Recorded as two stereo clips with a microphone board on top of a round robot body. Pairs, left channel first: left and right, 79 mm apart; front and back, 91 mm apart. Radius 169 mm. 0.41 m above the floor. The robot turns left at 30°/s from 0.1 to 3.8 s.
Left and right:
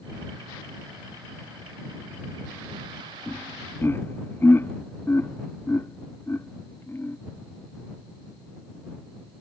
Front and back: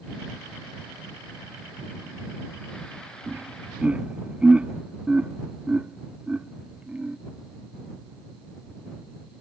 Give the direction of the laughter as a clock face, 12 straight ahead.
8 o'clock.